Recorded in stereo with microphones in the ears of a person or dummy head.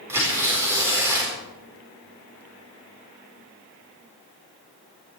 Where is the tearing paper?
15° right (ahead or behind), 4 m.